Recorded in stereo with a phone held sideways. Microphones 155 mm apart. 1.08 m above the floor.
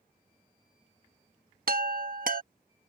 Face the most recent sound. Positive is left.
turn(degrees=-65)  # may be behind; listen again after turning